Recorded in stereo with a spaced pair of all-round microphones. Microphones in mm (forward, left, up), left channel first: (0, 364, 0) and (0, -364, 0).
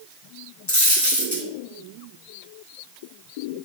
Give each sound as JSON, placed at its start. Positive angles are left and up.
{"t": 0.7, "sound": "a dropped coin", "side_deg": 25, "distance_m": 1.0}